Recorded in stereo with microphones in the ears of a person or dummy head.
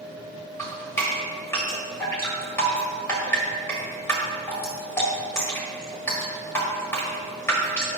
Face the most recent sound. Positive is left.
turn(degrees=10)  # may be behind; listen again after turning